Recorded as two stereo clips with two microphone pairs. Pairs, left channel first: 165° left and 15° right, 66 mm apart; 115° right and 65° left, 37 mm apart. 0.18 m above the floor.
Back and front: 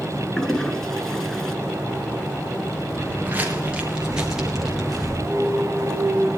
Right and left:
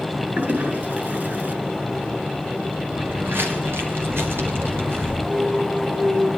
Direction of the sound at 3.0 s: 45° left.